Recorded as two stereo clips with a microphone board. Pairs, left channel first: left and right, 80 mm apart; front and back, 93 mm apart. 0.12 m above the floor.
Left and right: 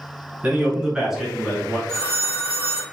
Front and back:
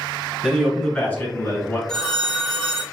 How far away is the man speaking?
About 1.1 m.